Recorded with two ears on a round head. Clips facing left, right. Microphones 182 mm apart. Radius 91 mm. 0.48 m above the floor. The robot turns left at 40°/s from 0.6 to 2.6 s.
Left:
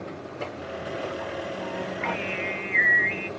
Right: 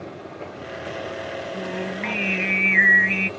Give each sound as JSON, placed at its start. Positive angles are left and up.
{"t": 1.5, "sound": "singing", "azimuth_deg": -25}